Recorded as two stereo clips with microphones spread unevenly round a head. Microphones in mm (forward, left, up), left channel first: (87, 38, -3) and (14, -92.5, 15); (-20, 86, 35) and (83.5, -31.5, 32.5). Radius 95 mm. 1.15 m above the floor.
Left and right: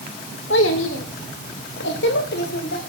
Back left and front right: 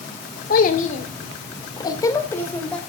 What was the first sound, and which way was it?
A child speaking, 100° left.